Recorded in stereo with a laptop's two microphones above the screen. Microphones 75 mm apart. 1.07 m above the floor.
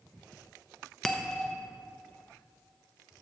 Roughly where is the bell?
Centre.